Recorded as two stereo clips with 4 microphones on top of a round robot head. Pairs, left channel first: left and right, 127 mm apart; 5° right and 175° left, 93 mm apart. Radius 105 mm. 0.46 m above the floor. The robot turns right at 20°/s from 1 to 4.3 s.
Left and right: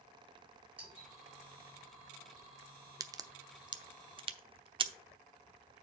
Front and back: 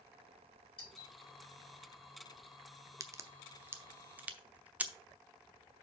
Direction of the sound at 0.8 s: 10° right.